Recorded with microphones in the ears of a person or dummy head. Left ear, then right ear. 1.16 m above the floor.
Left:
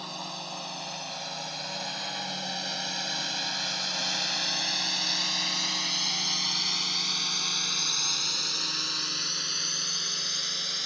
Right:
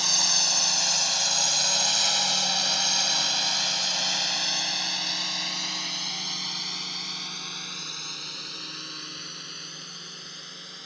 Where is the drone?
65° right (ahead or behind); by 10.9 s 25° left (ahead or behind).